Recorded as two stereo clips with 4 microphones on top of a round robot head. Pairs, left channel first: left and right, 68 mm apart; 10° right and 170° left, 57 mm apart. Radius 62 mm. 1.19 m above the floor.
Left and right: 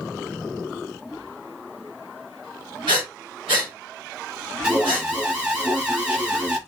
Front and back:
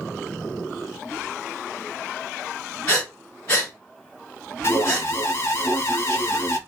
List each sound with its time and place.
2.9 s breathing: 70° right, 1.5 m
4.6 s an alarm: 15° right, 1.4 m